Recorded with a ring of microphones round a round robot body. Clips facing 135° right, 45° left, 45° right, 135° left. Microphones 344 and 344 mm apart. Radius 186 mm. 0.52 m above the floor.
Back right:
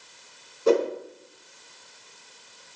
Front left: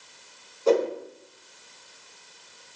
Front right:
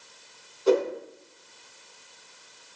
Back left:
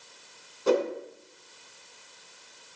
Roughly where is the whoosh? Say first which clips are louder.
Back right 1 dB, front right 3 dB; behind left.